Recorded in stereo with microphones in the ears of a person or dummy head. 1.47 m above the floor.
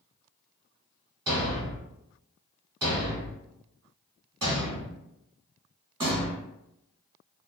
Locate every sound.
1.3 s a thud: 20° right (ahead or behind), 1.4 m